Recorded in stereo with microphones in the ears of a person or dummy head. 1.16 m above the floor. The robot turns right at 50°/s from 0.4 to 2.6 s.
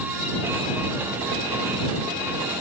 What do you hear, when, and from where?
Only background noise.